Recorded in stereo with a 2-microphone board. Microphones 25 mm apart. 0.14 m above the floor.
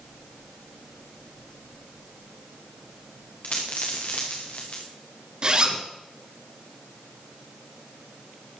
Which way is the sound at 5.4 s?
35° right (ahead or behind).